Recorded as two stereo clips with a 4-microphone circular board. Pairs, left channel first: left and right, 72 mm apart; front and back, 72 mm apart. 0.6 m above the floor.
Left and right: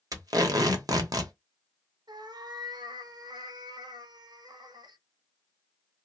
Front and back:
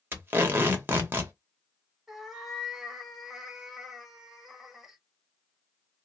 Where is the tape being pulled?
120° right, 0.8 m.